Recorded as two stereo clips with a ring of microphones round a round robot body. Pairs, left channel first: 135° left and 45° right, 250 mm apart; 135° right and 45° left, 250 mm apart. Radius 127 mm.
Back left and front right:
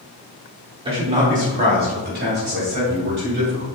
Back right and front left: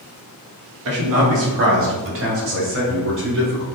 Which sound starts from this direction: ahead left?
A man speaking, at 0.8 s.